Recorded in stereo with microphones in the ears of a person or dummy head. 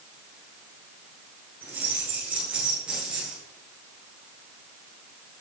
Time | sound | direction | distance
1.6 | keys jangling | 10° right (ahead or behind) | 10 m